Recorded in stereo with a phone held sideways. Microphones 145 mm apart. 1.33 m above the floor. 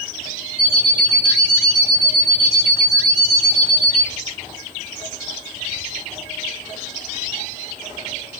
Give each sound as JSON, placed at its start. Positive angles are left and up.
{"t": 0.6, "sound": "an alarm clock", "side_deg": 60, "distance_m": 4.0}